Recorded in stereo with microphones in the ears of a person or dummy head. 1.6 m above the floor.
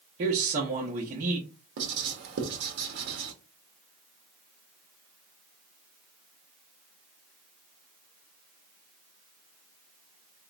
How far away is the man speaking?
About 0.9 m.